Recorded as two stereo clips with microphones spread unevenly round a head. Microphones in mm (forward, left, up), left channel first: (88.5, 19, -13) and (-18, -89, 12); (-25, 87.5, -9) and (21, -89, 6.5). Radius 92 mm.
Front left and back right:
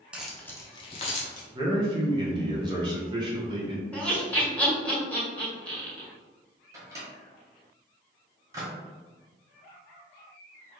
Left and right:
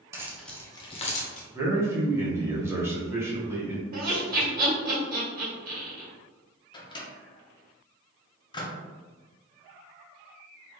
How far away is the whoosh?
No whoosh in this recording.